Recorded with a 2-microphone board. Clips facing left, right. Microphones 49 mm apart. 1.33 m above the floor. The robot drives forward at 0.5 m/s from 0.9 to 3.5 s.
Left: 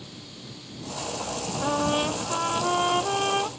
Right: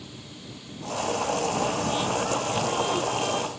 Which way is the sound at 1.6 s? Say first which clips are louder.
Left 1 dB; 35° left (ahead or behind).